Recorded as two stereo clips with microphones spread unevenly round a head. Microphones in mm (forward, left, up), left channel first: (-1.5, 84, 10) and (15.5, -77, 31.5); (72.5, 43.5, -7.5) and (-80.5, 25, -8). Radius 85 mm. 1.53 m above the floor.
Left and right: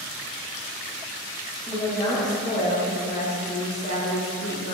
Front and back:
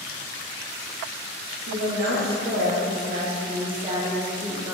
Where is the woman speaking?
Straight behind, 1.5 m; by 4.7 s 105° left, 1.8 m.